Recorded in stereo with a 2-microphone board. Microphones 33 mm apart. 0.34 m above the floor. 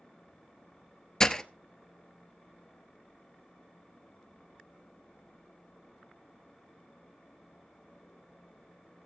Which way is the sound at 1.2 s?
20° left (ahead or behind).